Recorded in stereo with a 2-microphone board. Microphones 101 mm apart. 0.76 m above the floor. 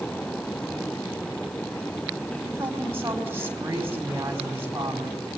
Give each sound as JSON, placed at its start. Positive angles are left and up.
{"t": 2.4, "sound": "a woman speaking", "side_deg": -25, "distance_m": 5.0}